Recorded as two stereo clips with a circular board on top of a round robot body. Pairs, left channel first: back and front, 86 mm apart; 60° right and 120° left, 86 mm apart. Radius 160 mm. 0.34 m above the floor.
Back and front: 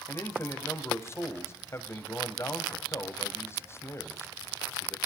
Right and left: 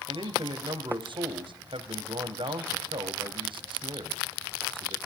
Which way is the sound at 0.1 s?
120° left.